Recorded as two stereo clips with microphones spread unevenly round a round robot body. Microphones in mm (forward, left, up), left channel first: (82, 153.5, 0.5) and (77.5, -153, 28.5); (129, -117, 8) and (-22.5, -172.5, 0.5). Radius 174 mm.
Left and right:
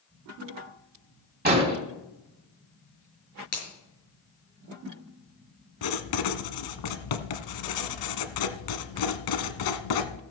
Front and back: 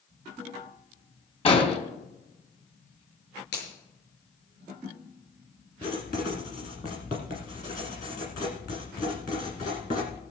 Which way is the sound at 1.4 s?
30° right.